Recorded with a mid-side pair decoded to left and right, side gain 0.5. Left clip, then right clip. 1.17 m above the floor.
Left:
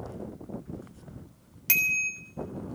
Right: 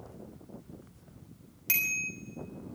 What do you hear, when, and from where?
1.7 s a bicycle bell: 35° left, 3 m